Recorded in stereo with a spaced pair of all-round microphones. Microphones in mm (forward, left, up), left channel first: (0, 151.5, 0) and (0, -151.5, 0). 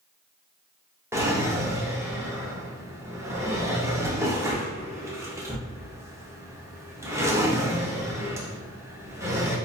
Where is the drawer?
10° right (ahead or behind), 0.5 m.